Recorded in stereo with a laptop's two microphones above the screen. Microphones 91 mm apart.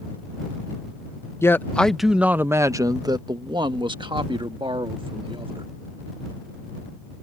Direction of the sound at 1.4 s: 30° left (ahead or behind).